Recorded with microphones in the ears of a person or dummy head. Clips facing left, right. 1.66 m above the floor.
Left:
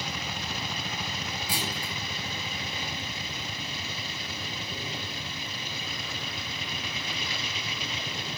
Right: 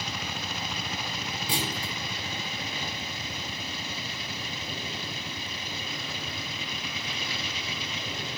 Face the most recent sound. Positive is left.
turn(degrees=-25)  # may be behind; listen again after turning